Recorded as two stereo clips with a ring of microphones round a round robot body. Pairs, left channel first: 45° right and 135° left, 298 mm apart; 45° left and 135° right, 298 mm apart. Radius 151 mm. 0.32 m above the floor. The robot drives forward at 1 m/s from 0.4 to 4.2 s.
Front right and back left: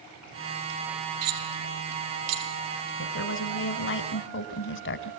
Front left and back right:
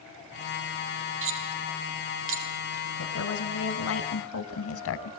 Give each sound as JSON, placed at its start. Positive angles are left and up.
{"t": 1.2, "sound": "cutlery clinking", "azimuth_deg": 175, "distance_m": 6.5}
{"t": 3.0, "sound": "a woman speaking", "azimuth_deg": 5, "distance_m": 3.5}